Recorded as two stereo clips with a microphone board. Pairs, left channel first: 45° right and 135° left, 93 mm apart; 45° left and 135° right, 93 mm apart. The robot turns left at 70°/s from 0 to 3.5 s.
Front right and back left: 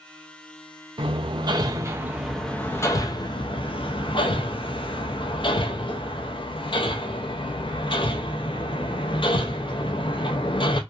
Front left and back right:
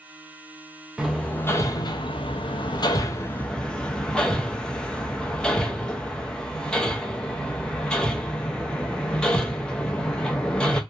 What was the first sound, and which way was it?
Hammering, 140° left.